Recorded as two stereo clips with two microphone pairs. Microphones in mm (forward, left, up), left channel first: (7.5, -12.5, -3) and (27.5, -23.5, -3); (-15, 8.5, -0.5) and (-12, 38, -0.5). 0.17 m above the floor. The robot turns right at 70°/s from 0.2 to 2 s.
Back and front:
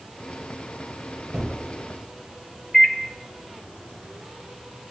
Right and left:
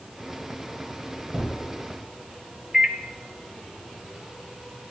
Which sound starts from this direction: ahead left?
A microwave, at 2.7 s.